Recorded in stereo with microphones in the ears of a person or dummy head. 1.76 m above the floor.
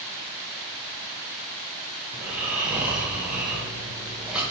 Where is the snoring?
5° right (ahead or behind), 1.0 m.